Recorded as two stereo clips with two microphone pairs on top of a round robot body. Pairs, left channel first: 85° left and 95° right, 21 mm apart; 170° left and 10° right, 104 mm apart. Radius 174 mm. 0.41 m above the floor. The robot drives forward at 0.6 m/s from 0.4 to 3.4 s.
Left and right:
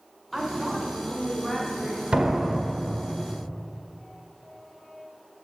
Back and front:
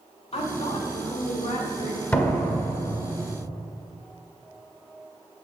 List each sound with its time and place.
0.3 s a woman speaking: straight behind, 2.5 m
2.1 s a door slam: 120° right, 1.8 m; by 3.1 s 135° right, 2 m